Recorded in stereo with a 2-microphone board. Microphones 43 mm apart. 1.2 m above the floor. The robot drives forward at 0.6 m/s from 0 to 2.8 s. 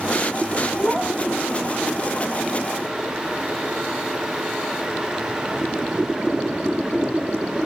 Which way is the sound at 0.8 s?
20° right (ahead or behind).